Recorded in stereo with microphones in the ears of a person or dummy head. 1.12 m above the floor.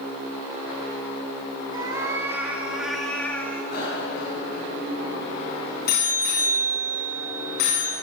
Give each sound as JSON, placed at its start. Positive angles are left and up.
{"t": 1.7, "sound": "a cat meowing", "side_deg": -25, "distance_m": 1.8}
{"t": 3.7, "sound": "a bicycle bell", "side_deg": 60, "distance_m": 8.0}